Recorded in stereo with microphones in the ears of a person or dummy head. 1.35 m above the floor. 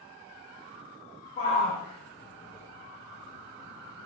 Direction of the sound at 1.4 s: 30° left (ahead or behind).